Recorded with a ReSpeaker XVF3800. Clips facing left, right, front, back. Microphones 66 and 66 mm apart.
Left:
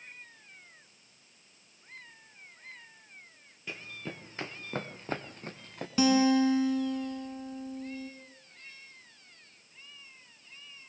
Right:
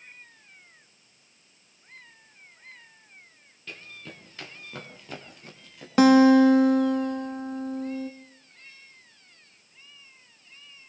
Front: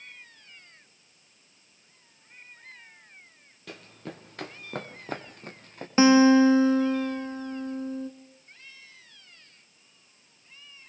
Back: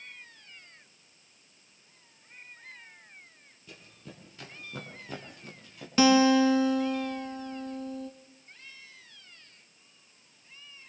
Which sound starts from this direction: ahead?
Running footsteps, at 3.7 s.